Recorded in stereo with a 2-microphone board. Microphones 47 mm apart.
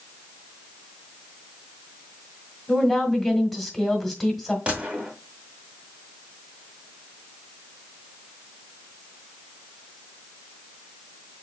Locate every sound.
2.7 s a woman speaking: 5° left (ahead or behind), 1.5 m
4.7 s a gunshot: 25° right (ahead or behind), 1.5 m